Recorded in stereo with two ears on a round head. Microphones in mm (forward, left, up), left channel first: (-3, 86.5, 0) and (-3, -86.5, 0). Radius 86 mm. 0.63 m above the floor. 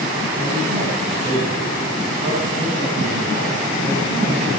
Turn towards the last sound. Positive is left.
turn(degrees=-50)  # may be behind; listen again after turning